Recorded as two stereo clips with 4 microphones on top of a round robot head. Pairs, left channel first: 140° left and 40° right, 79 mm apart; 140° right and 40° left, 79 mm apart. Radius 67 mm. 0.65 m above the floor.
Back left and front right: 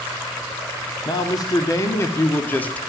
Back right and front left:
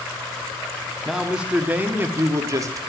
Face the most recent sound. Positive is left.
turn(degrees=70)